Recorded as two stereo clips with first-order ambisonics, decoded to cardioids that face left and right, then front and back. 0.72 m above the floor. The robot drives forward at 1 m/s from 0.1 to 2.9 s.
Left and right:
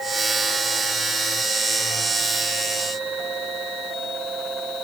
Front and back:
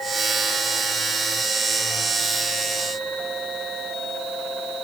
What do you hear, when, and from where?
Only background noise.